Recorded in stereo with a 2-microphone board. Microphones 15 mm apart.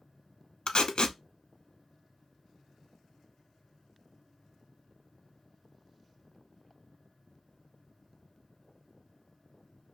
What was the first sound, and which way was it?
Tape being pulled, 65° left (ahead or behind).